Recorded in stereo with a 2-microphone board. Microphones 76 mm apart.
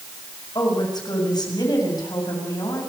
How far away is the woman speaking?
About 6.5 m.